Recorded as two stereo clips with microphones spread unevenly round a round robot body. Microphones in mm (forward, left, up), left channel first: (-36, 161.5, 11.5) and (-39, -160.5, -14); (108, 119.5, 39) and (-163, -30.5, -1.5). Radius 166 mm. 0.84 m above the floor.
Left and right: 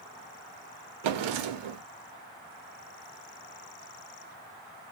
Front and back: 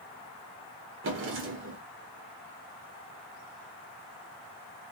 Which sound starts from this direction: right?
A drawer, at 1.0 s.